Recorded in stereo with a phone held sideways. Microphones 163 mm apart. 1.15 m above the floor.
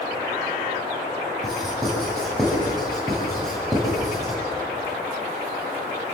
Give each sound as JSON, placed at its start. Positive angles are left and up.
{"t": 1.4, "sound": "writing", "side_deg": 0, "distance_m": 8.5}